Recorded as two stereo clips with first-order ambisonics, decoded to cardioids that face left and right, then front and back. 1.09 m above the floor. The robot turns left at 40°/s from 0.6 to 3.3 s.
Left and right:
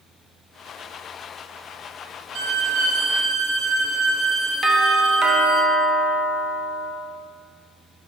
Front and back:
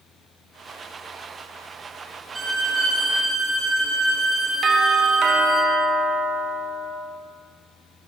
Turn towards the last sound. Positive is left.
turn(degrees=-140)